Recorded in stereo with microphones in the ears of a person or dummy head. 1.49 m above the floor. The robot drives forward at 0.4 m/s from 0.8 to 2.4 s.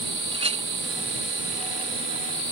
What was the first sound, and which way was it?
A clink, 30° right (ahead or behind).